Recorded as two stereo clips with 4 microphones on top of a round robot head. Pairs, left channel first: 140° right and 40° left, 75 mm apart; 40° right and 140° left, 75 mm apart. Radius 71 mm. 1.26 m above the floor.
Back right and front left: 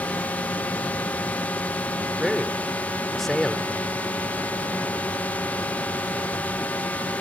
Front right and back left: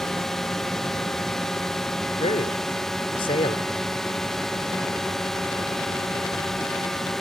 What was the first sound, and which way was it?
A drone, 120° right.